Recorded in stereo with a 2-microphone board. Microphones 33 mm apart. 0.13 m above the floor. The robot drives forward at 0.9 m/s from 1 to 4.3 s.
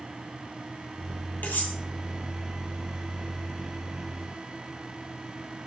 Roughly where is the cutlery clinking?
Left.